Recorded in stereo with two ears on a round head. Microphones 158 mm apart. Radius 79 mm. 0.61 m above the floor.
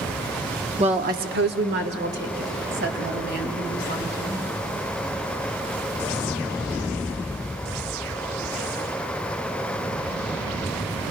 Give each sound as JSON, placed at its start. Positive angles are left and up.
{"t": 0.8, "sound": "a woman speaking", "side_deg": -30, "distance_m": 0.8}